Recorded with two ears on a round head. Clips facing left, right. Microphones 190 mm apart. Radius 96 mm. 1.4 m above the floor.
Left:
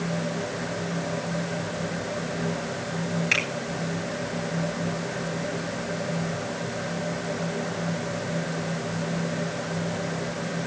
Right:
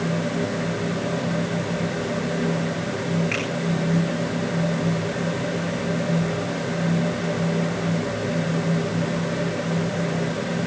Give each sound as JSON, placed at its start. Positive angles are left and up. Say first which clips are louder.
{"t": 3.3, "sound": "a finger snap", "louder": "right 4 dB", "side_deg": 55, "distance_m": 8.5}